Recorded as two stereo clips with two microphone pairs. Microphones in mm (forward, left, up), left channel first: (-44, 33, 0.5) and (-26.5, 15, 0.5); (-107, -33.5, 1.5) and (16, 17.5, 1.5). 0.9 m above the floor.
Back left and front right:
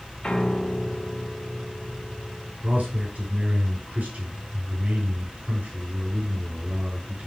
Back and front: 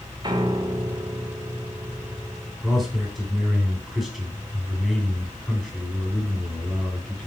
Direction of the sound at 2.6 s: 70° right.